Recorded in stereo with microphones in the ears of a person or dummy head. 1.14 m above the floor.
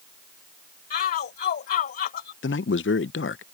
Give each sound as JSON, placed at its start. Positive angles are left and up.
{"t": 0.9, "sound": "a shout", "side_deg": 55}
{"t": 2.4, "sound": "a man speaking", "side_deg": 55}